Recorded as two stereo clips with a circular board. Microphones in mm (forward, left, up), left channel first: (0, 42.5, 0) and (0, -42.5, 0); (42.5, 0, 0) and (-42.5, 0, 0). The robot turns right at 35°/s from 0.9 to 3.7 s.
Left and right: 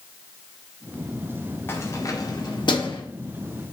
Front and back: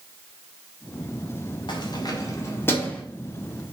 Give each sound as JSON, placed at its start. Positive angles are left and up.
{"t": 1.7, "sound": "keys jangling", "azimuth_deg": 25, "distance_m": 1.7}